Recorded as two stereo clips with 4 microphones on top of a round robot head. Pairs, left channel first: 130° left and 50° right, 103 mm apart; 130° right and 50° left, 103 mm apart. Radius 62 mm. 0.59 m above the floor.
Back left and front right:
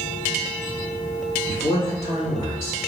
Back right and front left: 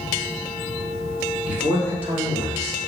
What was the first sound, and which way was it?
A man speaking, 125° left.